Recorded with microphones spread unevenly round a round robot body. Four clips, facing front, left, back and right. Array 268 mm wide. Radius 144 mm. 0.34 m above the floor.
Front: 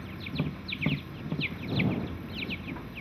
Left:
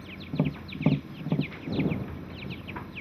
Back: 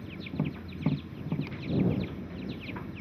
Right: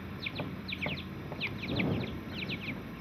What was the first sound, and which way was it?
Tapping, 100° left.